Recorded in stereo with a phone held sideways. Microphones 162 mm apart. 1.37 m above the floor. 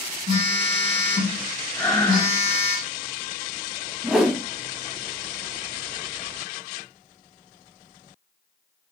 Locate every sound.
0.3 s a phone buzzing: 35° right (ahead or behind), 3.5 m
1.8 s breathing: 10° left (ahead or behind), 3.5 m
4.0 s a whoosh: 5° right (ahead or behind), 1.5 m